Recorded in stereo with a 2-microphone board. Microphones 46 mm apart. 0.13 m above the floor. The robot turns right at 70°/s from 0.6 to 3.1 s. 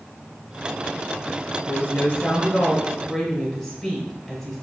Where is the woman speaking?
90° left, 1.6 m; by 4.6 s 170° right, 1.6 m.